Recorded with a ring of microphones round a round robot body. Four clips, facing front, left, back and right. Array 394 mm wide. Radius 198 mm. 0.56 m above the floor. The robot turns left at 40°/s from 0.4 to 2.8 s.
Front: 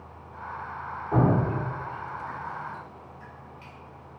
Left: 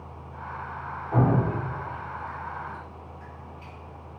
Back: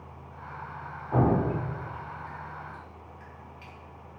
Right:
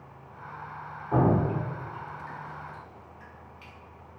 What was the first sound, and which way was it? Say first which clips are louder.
Dripping: even, front 1 dB; 45° right.